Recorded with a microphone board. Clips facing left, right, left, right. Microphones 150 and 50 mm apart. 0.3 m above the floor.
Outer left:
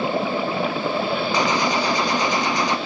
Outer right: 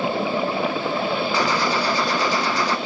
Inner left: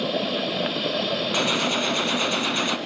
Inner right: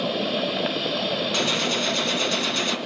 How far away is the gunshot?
About 2.0 m.